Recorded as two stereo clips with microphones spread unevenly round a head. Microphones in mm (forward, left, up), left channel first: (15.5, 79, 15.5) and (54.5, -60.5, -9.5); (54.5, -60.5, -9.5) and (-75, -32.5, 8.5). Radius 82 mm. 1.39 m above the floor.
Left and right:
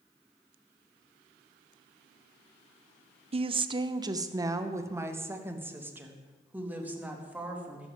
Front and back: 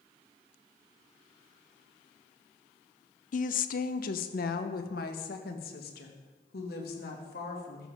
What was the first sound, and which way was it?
A woman speaking, 30° right.